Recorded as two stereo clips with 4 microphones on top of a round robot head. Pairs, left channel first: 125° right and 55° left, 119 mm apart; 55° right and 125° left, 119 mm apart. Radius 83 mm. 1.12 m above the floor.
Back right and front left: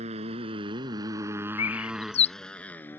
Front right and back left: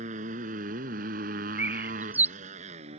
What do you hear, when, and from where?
0.0 s a motorcycle: 95° left; by 3.0 s 165° left
1.6 s a bird: 160° right